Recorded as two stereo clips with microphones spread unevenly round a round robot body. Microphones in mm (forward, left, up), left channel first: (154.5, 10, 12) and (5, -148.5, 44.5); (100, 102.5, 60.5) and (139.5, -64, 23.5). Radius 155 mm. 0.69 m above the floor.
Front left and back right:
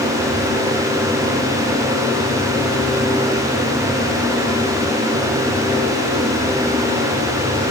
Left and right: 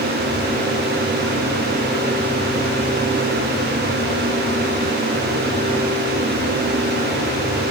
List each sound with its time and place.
Only background noise.